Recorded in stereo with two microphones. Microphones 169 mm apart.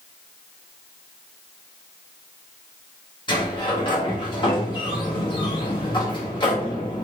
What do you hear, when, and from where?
3.3 s a sliding door: 30° left (ahead or behind), 1.5 m